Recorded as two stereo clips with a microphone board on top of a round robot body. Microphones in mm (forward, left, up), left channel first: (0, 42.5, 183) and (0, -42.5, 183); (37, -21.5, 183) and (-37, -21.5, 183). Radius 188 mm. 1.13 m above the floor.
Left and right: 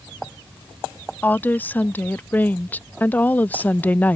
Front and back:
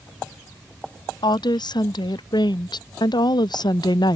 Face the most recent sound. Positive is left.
turn(degrees=15)